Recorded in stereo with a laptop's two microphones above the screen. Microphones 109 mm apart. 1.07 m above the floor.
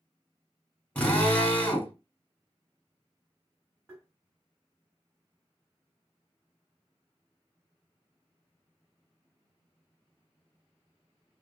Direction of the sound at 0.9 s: 15° left (ahead or behind).